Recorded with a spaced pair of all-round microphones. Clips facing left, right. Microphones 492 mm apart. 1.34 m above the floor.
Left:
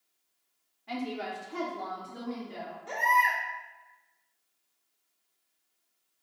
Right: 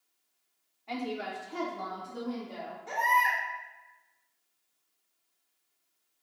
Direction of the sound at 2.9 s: 5° right (ahead or behind).